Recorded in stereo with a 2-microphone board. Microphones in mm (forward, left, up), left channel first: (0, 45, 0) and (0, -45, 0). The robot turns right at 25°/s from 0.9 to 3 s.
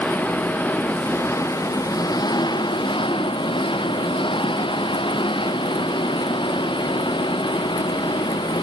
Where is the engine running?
15° left; by 8.6 s 70° left.